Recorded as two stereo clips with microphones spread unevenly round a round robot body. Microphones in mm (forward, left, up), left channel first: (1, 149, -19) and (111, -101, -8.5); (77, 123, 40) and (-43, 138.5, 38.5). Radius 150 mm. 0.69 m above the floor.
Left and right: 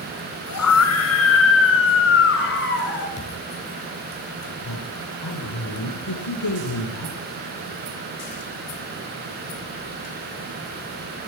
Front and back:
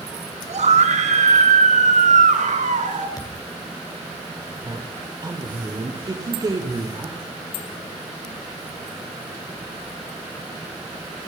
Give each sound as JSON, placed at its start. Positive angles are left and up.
{"t": 0.5, "sound": "a scream", "azimuth_deg": 155, "distance_m": 5.5}
{"t": 3.2, "sound": "a thud", "azimuth_deg": 50, "distance_m": 6.5}
{"t": 4.7, "sound": "a woman speaking", "azimuth_deg": 120, "distance_m": 3.0}